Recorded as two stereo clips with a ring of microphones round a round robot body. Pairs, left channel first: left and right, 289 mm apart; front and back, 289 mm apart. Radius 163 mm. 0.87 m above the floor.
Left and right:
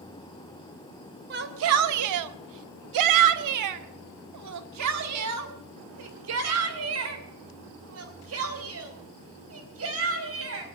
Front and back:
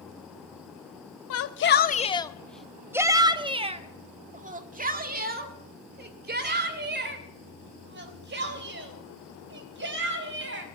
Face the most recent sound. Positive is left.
turn(degrees=-130)